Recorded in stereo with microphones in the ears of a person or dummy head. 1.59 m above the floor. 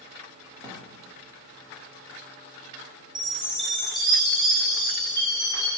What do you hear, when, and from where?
0.6 s a drawer: 20° right (ahead or behind), 2 m
3.1 s a chime: 20° right (ahead or behind), 3.5 m